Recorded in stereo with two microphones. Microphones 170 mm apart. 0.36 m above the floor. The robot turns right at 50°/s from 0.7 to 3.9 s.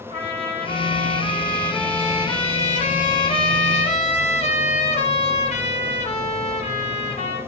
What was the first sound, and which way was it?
A trumpet, 45° right.